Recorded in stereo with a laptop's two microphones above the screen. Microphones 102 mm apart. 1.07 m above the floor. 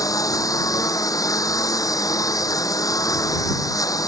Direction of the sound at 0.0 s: 35° left (ahead or behind).